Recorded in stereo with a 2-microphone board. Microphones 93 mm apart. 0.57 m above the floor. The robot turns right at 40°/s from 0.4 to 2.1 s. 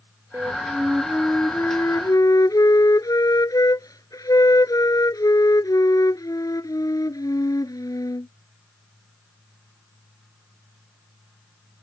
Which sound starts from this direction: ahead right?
A flute, at 0.3 s.